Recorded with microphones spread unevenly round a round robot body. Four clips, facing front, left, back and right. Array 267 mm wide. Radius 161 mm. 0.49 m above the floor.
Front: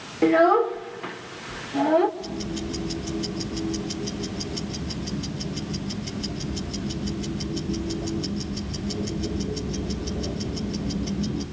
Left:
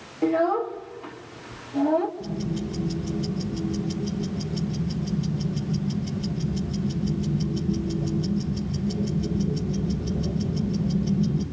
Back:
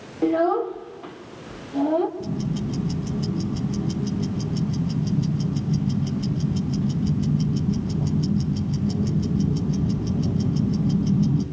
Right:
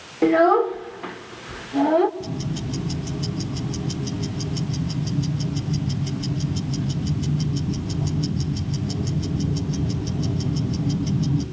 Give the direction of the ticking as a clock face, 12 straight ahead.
5 o'clock.